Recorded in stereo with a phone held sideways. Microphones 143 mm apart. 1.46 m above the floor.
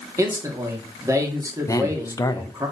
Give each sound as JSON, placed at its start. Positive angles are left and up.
{"t": 0.2, "sound": "a man speaking", "side_deg": -20, "distance_m": 1.3}
{"t": 1.7, "sound": "a man speaking", "side_deg": 25, "distance_m": 0.6}